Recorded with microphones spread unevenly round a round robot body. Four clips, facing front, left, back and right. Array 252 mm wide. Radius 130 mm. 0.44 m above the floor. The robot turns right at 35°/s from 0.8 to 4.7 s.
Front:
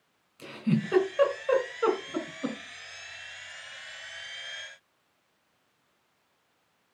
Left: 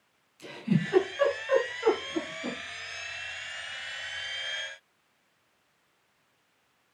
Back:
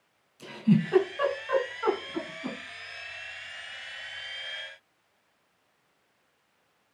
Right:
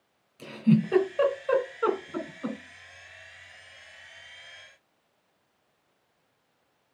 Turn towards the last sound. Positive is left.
turn(degrees=65)